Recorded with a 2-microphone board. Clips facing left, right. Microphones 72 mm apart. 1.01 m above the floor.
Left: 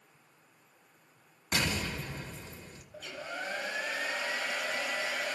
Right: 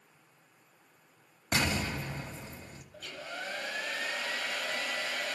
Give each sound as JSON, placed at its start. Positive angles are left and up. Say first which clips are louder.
{"t": 1.5, "sound": "an explosion", "louder": "right 2 dB", "side_deg": -50, "distance_m": 1.4}
{"t": 2.9, "sound": "a hair dryer", "louder": "left 2 dB", "side_deg": 5, "distance_m": 2.5}